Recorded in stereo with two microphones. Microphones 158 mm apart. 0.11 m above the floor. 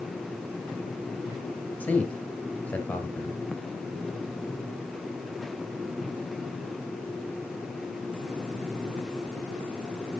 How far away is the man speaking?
About 1.8 m.